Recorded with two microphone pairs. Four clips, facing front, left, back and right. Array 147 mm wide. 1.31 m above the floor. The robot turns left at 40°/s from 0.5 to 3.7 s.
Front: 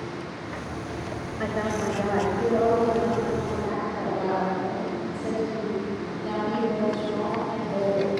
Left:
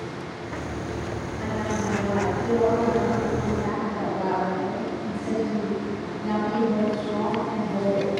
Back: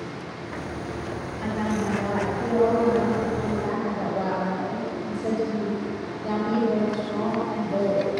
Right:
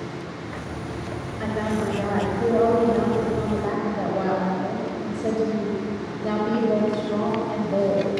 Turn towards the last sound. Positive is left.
turn(degrees=-110)